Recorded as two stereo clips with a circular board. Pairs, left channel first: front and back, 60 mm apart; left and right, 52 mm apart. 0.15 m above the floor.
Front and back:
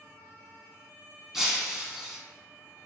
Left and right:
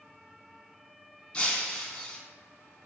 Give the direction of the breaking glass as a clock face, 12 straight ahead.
8 o'clock.